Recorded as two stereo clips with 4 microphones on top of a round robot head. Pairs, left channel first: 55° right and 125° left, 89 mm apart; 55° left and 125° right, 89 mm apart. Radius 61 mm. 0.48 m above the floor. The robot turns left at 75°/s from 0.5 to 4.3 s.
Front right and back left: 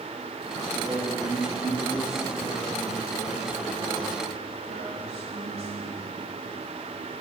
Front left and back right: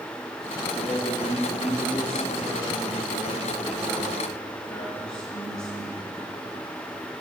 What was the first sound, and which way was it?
A man speaking, 40° left.